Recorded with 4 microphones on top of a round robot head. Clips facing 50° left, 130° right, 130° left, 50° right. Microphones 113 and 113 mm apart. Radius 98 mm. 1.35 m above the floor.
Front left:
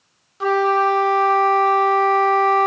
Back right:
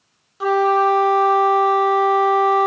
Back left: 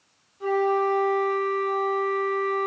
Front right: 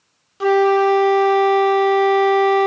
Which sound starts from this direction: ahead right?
A flute, at 0.4 s.